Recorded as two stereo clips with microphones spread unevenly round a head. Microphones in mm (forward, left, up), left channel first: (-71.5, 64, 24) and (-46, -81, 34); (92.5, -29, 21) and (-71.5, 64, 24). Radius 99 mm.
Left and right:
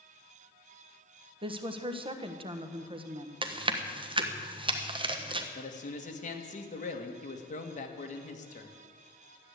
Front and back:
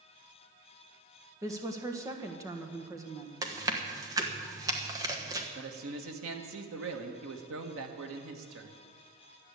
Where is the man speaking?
135° left, 1.9 m.